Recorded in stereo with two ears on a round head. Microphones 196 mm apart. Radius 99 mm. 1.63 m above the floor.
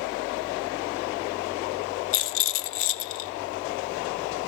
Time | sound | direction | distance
2.1 | a rattle | 60° left (ahead or behind) | 1.0 m